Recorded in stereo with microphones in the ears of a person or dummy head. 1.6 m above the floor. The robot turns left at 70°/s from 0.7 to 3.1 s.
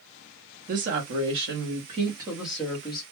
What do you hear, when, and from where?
0.7 s a woman speaking: 50° right, 0.8 m; by 3.0 s 145° left, 0.8 m